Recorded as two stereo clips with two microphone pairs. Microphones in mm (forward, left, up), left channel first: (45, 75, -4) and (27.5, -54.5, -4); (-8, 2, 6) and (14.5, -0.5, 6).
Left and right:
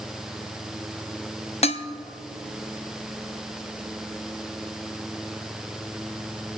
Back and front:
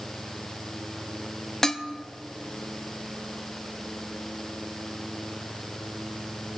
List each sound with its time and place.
1.6 s dishes clattering: 105° left, 0.6 m